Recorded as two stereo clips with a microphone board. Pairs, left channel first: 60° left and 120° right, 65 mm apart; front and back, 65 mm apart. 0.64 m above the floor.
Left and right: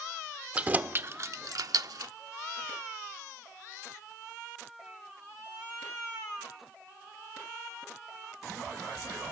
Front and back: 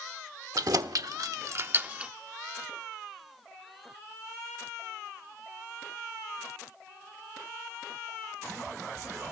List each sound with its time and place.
0.6 s keys jangling: 170° left, 1.2 m; by 2.1 s 105° right, 0.9 m